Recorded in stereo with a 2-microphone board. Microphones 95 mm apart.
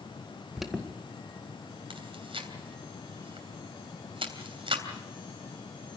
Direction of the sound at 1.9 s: 70° right (ahead or behind).